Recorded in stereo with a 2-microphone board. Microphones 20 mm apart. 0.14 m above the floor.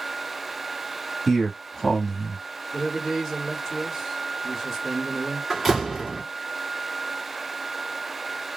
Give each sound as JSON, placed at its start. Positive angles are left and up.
{"t": 1.3, "sound": "a man speaking", "side_deg": 25, "distance_m": 1.2}
{"t": 2.7, "sound": "a man speaking", "side_deg": -20, "distance_m": 1.5}
{"t": 5.5, "sound": "a door slam", "side_deg": -10, "distance_m": 1.4}